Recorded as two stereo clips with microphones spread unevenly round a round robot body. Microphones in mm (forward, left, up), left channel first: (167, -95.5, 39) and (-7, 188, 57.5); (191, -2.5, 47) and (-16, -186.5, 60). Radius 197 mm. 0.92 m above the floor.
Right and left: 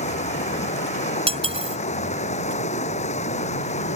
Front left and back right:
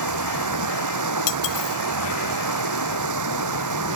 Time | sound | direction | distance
0.0 | running water | 135° right | ?
1.3 | cutlery clinking | 50° left | ?